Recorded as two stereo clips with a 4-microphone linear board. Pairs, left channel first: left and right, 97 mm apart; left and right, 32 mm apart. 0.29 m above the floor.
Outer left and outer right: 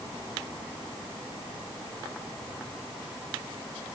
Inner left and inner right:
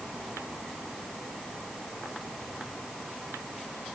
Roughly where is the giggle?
I don't hear a giggle.